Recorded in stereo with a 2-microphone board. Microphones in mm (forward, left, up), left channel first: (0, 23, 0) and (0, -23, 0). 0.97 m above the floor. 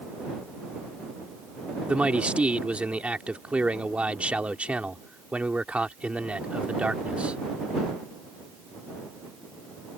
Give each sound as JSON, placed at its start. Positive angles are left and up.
{"t": 1.9, "sound": "a man speaking", "side_deg": -30}